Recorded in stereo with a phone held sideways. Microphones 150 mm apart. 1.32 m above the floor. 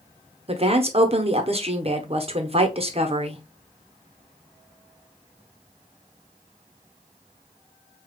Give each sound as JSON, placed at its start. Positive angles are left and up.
{"t": 0.5, "sound": "a woman speaking", "side_deg": -40, "distance_m": 0.9}